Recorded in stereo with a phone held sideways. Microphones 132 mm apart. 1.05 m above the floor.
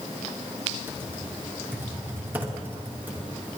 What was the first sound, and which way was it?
Typing on a keyboard, 15° right (ahead or behind).